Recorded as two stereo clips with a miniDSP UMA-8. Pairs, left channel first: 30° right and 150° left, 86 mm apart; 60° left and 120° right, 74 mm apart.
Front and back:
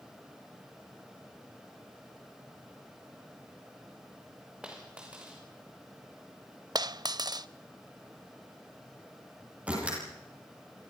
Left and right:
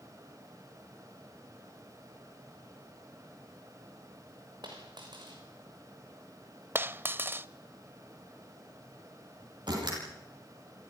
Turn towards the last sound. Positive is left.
turn(degrees=-135)